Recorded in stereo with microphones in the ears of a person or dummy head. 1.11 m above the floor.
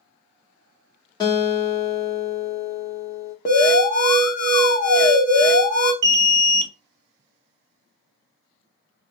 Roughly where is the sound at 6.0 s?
Right.